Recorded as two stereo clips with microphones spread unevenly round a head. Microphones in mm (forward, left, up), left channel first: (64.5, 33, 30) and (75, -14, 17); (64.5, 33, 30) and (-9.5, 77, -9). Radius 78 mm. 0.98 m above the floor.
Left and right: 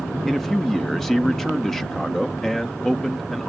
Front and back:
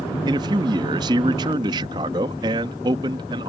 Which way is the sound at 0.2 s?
170° right.